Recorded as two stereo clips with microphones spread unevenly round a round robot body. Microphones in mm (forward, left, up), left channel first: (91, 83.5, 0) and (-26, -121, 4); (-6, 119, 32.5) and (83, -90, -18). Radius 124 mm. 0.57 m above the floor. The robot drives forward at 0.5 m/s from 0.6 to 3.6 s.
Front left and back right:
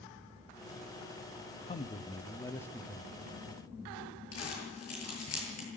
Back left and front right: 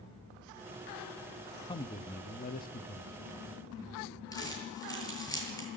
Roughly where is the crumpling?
Ahead left.